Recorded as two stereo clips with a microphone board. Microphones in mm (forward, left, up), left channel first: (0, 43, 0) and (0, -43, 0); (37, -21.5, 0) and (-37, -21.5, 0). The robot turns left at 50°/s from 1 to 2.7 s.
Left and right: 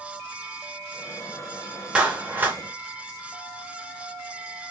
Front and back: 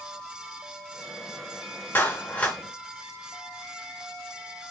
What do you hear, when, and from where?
1.9 s a clap: 25° right, 0.8 m; by 2.6 s 60° right, 0.8 m